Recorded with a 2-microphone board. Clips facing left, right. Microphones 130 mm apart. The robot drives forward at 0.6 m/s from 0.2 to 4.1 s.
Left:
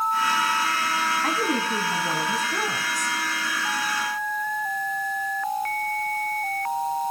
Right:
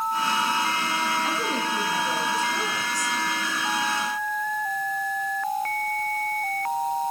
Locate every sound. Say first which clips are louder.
1.2 s a woman speaking: left 2 dB; 70° left (ahead or behind), 3 m; by 3.2 s 55° left (ahead or behind), 3.5 m